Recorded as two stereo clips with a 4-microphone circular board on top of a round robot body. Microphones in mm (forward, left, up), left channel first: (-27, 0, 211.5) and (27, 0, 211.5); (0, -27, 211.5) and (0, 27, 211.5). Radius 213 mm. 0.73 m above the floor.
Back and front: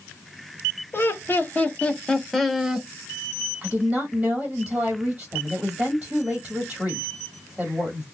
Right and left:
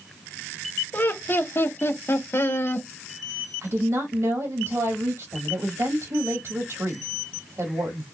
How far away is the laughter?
About 1.8 m.